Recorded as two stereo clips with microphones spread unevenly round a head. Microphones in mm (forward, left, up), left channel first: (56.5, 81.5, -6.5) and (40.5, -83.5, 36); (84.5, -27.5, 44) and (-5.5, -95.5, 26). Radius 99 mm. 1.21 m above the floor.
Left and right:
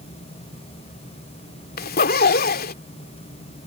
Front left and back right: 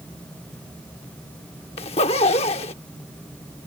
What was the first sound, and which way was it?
A zipper, 55° left.